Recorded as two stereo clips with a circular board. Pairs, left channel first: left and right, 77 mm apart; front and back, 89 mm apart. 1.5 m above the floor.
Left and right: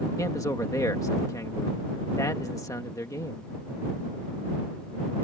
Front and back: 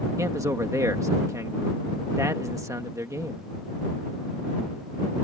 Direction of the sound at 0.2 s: 130° left.